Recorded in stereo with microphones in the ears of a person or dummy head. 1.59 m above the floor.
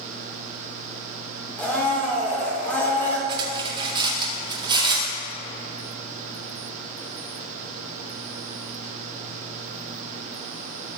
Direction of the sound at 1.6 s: 15° left (ahead or behind).